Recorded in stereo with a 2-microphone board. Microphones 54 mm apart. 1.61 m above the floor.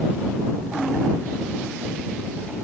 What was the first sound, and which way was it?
Only background noise.